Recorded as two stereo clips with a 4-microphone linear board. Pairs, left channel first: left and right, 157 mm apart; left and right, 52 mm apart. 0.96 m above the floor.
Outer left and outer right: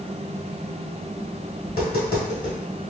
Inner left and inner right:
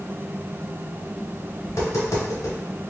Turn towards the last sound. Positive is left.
turn(degrees=75)  # may be behind; listen again after turning